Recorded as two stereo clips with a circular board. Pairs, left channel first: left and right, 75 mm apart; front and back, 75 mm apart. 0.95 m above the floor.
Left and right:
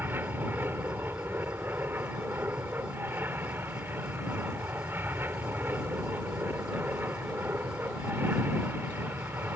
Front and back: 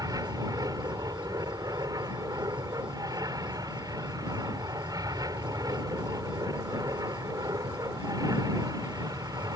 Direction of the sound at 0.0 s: 150° right.